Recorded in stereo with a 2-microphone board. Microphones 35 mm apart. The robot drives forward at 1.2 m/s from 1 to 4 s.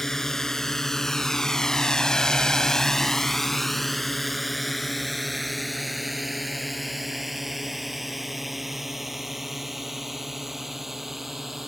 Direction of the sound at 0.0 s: 15° left (ahead or behind).